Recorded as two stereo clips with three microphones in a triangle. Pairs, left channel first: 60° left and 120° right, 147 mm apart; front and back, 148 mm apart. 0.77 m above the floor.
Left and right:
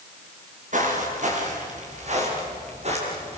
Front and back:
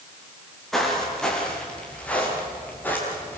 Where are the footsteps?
90° right, 8 m; by 3.4 s 75° right, 9.5 m.